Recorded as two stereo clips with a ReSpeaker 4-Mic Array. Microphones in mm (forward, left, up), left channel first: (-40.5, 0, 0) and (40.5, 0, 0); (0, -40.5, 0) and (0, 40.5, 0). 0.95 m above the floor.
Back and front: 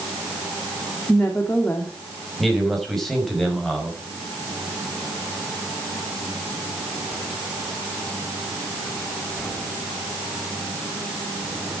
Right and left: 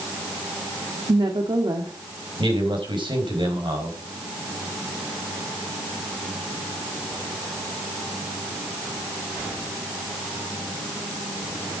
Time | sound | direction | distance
1.1 | a woman speaking | 115° left | 2 m
2.4 | a man speaking | 95° left | 5 m